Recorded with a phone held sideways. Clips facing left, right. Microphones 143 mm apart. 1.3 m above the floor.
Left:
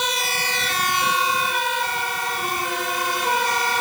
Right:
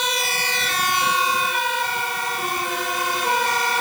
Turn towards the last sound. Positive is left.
No sound to turn to.